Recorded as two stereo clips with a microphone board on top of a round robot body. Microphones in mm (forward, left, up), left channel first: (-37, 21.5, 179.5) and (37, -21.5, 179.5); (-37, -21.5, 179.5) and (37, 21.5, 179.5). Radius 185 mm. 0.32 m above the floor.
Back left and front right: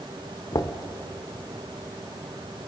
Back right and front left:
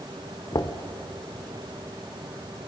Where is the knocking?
Straight behind, 1.4 m.